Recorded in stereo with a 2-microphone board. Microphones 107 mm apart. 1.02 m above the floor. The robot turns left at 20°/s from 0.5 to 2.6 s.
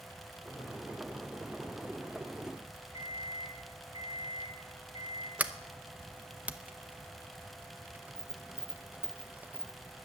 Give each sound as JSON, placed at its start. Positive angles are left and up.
{"t": 2.9, "sound": "an alarm clock", "side_deg": 60, "distance_m": 4.5}
{"t": 5.4, "sound": "a sliding door", "side_deg": -15, "distance_m": 0.7}